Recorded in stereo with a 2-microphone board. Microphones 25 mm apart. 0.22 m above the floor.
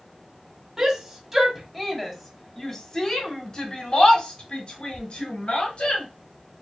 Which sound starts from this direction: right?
A shout, at 0.8 s.